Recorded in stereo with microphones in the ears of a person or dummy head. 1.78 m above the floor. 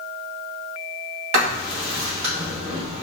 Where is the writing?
45° right (ahead or behind), 1.7 m.